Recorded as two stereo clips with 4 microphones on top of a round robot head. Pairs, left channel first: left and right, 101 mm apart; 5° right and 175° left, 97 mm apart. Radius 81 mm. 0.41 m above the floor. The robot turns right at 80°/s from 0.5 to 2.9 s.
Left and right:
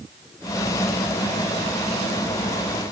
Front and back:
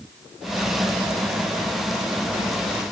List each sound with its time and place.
Only background noise.